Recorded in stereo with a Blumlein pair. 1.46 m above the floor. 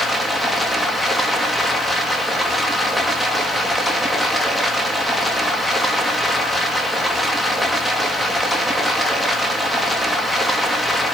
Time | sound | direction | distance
0.0 | running water | 5° left | 1.8 m